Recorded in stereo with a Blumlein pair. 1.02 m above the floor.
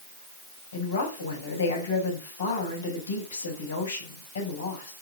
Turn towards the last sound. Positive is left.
turn(degrees=65)